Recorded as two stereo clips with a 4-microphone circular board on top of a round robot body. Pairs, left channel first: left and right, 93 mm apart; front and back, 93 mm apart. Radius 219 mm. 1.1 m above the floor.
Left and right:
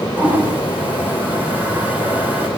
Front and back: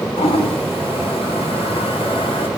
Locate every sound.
0.2 s a toilet flushing: 15° right, 5 m